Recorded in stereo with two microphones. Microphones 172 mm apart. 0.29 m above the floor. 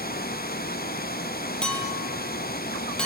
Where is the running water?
65° left (ahead or behind), 1.3 m.